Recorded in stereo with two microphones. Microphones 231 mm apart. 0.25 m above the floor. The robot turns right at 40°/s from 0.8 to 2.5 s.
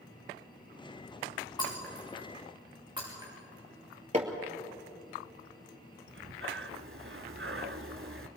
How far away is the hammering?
About 2.5 m.